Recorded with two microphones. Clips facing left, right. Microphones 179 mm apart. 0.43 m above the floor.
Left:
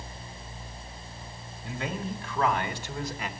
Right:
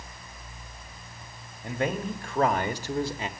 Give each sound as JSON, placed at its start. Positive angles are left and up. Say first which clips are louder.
{"t": 1.6, "sound": "a man speaking", "louder": "right 5 dB", "side_deg": -60, "distance_m": 1.7}